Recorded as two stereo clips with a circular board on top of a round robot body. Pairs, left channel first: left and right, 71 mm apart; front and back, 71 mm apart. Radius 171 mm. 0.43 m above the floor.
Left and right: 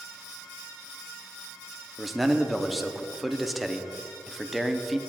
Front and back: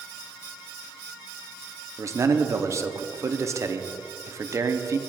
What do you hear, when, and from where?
2.0 s a man speaking: straight behind, 0.9 m